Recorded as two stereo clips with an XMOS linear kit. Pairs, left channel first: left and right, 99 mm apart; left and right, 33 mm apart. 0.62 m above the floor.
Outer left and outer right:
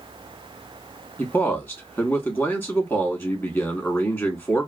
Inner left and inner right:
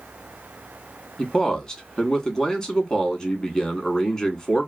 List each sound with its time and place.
1.2 s a man speaking: 20° left (ahead or behind), 1.1 m